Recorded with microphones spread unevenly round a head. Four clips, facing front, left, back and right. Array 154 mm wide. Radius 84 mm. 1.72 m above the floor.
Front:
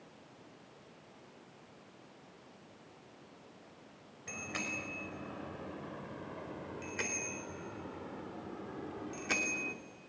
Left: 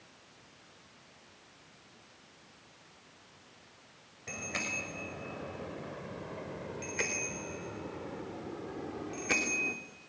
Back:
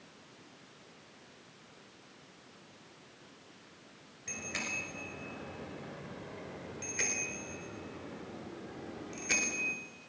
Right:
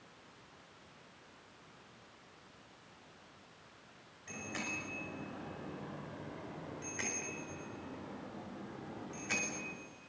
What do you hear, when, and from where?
4.3 s a bicycle bell: 85° left, 5.5 m; by 9.8 s 80° left, 3 m